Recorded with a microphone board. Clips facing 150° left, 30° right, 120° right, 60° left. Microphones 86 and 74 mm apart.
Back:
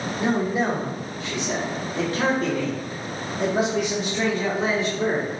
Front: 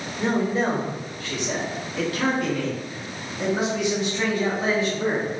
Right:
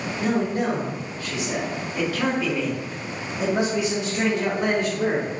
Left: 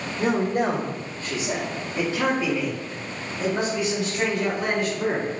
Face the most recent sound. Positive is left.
turn(degrees=-155)